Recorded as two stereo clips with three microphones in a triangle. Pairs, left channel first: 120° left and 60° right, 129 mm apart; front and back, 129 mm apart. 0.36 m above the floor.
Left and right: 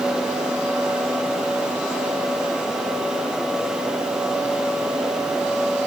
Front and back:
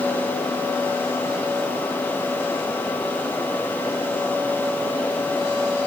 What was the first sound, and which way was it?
Only background noise.